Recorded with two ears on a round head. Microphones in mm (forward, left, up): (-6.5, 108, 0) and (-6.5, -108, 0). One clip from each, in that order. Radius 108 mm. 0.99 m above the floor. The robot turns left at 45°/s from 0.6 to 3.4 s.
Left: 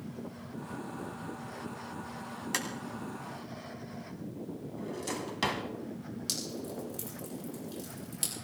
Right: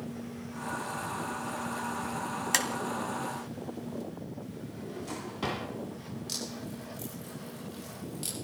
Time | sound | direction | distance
2.5 | tapping | 15° right (ahead or behind) | 1.5 m
4.8 | a drawer | 60° left (ahead or behind) | 2.5 m
6.3 | dripping | 55° left (ahead or behind) | 8.5 m